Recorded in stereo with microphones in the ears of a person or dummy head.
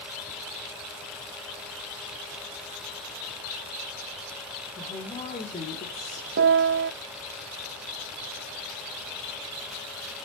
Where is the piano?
55° right (ahead or behind), 0.6 m.